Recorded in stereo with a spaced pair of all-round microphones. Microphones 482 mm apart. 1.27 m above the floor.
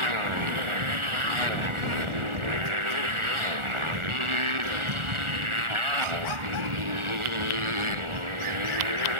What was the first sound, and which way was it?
A motorcycle, 85° right.